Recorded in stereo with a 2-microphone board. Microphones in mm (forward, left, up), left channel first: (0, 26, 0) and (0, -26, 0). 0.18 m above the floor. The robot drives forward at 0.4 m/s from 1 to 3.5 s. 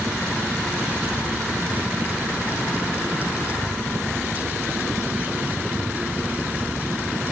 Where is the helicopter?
10° right (ahead or behind).